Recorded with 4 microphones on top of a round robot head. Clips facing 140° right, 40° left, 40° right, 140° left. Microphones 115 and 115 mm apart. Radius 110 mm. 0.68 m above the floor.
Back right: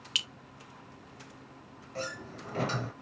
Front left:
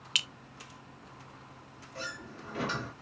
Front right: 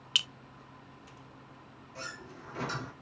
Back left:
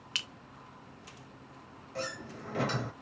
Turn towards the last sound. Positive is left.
turn(degrees=170)